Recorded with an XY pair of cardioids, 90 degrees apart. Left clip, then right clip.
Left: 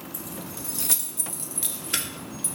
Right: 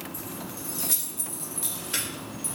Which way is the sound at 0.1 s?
45° left.